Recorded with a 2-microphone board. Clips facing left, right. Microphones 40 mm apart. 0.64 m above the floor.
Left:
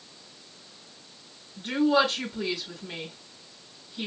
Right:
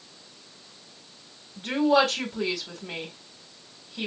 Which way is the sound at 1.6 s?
75° right (ahead or behind).